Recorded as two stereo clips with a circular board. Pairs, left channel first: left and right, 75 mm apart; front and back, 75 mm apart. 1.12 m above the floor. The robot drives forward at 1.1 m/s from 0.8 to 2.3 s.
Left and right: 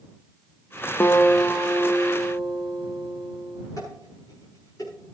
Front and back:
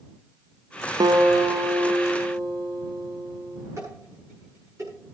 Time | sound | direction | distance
1.0 | a guitar | 150° left | 0.7 m
3.8 | dishes clattering | 130° left | 9.5 m